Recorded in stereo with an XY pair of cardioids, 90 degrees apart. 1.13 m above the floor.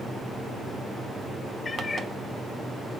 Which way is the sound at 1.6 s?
35° left.